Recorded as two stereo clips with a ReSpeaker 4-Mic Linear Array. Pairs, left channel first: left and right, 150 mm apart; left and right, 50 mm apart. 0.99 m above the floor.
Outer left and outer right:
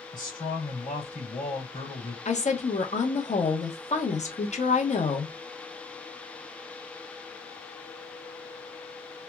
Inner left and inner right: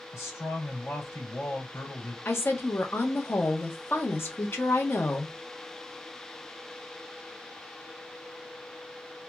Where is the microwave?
No microwave in this recording.